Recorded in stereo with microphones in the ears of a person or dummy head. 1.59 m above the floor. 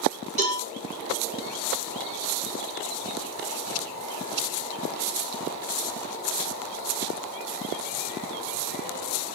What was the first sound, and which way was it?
A cowbell, 35° right (ahead or behind).